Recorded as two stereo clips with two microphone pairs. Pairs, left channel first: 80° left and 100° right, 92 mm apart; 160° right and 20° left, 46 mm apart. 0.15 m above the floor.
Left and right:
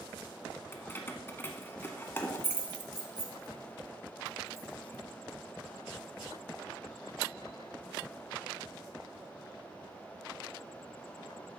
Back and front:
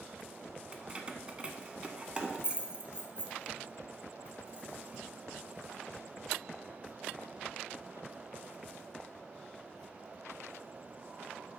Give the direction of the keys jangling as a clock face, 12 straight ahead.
11 o'clock.